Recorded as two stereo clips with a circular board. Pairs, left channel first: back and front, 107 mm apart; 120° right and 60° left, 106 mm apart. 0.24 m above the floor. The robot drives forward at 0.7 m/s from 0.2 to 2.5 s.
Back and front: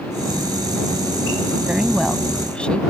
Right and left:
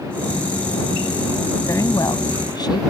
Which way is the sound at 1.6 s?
75° right.